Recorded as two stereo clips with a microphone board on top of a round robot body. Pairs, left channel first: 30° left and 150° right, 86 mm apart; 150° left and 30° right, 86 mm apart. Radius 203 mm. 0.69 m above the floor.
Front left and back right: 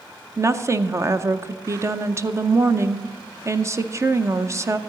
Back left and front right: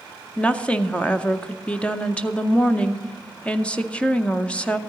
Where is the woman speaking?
145° right, 1.0 m.